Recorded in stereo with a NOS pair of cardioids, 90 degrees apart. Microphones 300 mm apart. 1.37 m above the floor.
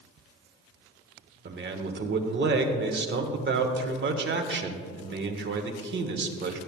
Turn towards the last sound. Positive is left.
turn(degrees=-40)